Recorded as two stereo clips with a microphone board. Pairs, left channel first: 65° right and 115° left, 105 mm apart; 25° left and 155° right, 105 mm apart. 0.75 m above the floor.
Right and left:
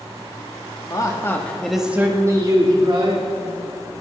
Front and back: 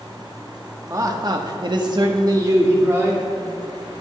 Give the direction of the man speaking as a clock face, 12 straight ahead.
4 o'clock.